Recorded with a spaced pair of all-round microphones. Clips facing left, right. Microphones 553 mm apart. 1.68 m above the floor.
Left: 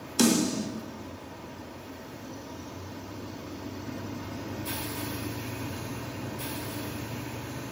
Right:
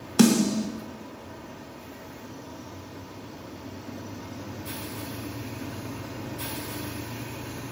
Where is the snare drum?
75° right (ahead or behind), 2 m.